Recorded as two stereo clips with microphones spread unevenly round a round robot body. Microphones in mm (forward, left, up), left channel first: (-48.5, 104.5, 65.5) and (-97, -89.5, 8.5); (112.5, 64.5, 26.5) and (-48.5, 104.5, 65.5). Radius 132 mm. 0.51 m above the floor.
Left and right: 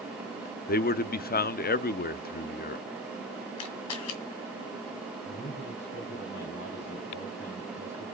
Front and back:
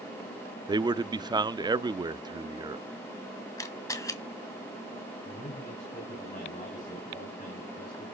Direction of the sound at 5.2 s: 25° left.